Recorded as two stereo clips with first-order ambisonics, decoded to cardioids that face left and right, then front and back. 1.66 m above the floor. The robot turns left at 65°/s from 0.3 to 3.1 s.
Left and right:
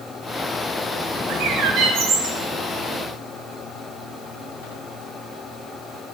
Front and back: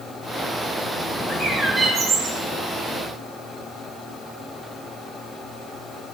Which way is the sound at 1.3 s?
70° right.